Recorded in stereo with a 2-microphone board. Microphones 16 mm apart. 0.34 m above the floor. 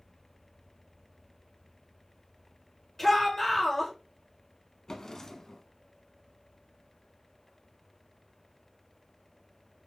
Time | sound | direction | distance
3.0 | a shout | 20° left (ahead or behind) | 1.5 m
4.9 | a drawer | 40° left (ahead or behind) | 0.7 m